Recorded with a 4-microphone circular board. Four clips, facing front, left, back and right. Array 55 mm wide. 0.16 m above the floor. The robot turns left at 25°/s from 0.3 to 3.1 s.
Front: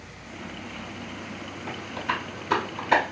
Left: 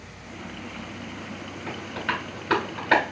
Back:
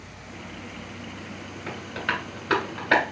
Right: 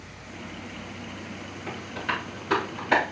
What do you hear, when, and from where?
1.7 s tapping: 165° left, 2.5 m; by 3.0 s 130° left, 2.5 m